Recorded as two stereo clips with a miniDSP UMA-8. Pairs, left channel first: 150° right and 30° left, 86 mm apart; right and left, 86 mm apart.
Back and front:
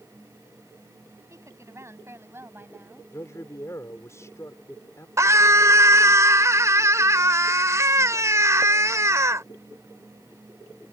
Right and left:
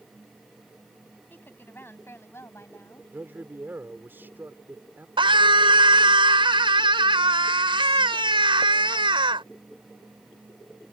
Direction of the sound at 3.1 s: 155° left.